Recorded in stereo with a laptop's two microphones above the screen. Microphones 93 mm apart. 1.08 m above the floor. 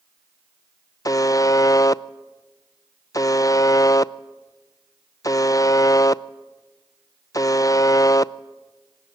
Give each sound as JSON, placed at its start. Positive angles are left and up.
{"t": 1.1, "sound": "a buzzer", "side_deg": 40, "distance_m": 0.5}